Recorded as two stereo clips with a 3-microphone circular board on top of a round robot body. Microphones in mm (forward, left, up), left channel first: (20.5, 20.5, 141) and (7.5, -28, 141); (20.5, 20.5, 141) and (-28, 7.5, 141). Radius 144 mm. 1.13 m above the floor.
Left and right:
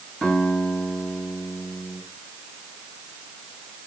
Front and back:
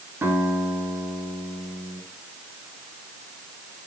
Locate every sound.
0.2 s a guitar: 150° left, 8 m